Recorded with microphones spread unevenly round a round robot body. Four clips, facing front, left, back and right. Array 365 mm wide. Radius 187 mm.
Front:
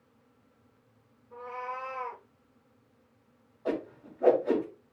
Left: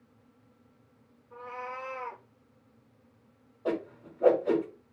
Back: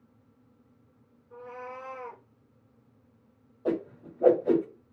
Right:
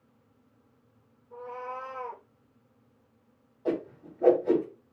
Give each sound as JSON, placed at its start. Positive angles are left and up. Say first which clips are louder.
{"t": 1.3, "sound": "a cat meowing", "louder": "right 2 dB, front 3 dB", "azimuth_deg": 180, "distance_m": 1.8}
{"t": 3.6, "sound": "a whoosh", "louder": "right 1 dB, back 3 dB", "azimuth_deg": 180, "distance_m": 1.4}